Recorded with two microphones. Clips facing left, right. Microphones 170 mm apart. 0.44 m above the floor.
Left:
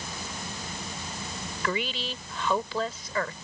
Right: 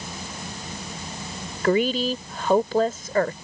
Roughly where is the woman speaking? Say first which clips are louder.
Right 11 dB; right.